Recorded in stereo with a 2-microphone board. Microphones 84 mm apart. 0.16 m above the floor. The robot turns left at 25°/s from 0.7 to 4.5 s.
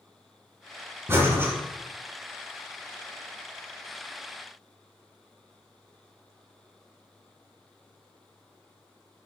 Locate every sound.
1.1 s breathing: 30° right (ahead or behind), 1.1 m; by 1.5 s 25° right (ahead or behind), 1.1 m